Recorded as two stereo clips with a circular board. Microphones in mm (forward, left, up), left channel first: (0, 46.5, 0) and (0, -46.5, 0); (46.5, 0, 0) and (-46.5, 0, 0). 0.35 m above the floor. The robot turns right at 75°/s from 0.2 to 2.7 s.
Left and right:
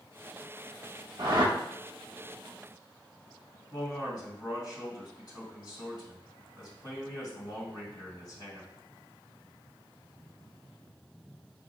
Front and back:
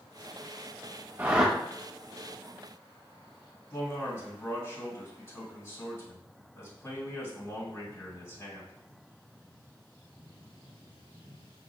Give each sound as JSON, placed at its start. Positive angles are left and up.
{"t": 1.2, "sound": "a whoosh", "azimuth_deg": -115, "distance_m": 0.7}
{"t": 3.7, "sound": "a man speaking", "azimuth_deg": 55, "distance_m": 2.0}